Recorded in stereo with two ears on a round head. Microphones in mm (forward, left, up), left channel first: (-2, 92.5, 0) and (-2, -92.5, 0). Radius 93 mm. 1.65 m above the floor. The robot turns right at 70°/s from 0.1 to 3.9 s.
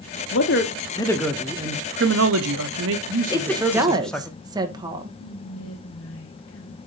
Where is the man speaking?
110° left, 1.1 m; by 4.3 s 5° left, 1.1 m.